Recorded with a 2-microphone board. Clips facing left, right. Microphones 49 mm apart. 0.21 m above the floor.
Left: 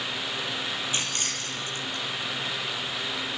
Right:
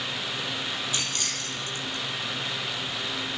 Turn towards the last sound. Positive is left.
turn(degrees=30)  # may be behind; listen again after turning